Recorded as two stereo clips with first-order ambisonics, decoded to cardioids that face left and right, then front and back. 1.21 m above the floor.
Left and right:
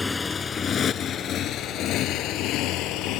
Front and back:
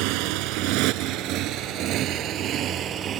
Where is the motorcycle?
170° left; by 3.2 s 125° left.